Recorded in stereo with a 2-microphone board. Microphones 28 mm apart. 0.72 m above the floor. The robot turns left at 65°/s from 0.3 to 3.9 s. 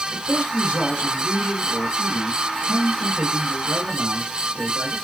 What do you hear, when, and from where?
0.1 s a man speaking: 135° left, 3 m; by 5.0 s 100° right, 3 m